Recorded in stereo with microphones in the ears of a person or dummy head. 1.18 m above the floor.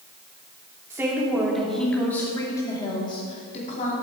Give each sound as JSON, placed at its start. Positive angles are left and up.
{"t": 0.9, "sound": "a woman speaking", "side_deg": -10, "distance_m": 3.0}